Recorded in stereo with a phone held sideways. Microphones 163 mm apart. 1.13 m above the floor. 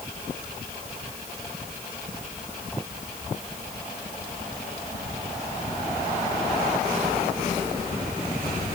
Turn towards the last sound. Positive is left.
No sound to turn to.